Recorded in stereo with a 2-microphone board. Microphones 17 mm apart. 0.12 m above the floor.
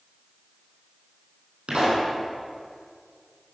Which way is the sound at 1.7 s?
70° right (ahead or behind).